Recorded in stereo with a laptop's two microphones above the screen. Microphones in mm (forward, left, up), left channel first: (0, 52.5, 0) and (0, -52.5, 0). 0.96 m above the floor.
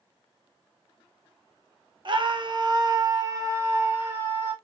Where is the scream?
50° right (ahead or behind), 0.6 m; by 4.5 s 20° right (ahead or behind), 1.4 m.